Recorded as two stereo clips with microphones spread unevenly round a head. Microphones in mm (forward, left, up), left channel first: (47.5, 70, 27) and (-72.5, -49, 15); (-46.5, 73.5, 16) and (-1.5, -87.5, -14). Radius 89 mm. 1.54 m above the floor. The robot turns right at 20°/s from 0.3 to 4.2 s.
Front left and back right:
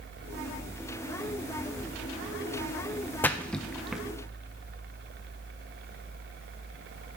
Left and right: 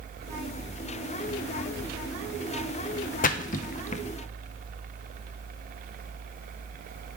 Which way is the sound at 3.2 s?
120° left.